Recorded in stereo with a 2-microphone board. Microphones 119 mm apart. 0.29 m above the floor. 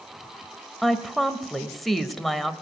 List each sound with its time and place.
0.8 s a woman speaking: centre (ahead or behind), 0.9 m